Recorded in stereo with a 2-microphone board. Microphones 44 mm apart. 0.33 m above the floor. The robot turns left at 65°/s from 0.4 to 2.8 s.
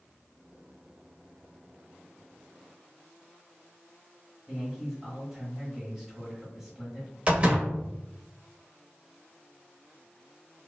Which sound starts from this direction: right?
A door slam, at 7.3 s.